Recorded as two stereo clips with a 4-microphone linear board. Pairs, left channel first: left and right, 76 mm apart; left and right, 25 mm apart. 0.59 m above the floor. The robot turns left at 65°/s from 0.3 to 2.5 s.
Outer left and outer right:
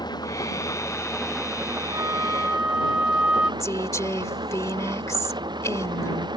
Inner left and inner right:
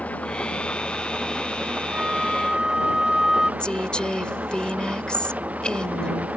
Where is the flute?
125° right; by 3.5 s 165° right.